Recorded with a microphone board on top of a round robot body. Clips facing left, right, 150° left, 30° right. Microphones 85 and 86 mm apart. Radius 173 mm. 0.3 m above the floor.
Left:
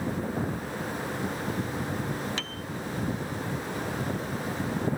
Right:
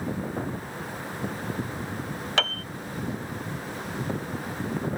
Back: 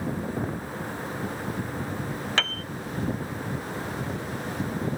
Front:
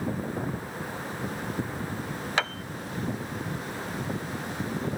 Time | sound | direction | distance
2.4 | a piano | 105° right | ?